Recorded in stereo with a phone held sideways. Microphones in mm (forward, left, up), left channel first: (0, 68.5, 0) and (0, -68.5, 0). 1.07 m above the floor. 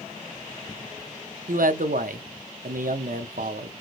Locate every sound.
1.5 s a man speaking: 80° right, 0.6 m